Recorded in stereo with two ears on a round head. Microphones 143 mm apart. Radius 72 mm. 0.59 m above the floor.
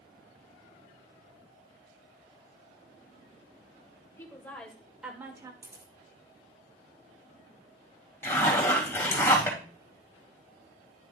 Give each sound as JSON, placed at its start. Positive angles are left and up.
{"t": 4.2, "sound": "a woman speaking", "side_deg": 15, "distance_m": 2.5}
{"t": 5.6, "sound": "a camera shutter", "side_deg": -15, "distance_m": 3.0}
{"t": 8.2, "sound": "a zipper", "side_deg": 15, "distance_m": 3.0}